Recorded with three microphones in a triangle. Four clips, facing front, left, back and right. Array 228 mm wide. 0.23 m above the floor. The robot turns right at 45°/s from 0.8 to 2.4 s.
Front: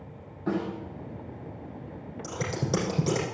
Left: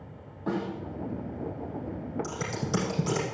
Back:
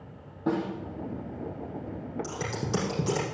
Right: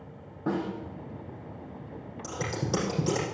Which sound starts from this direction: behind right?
A snare drum, at 0.5 s.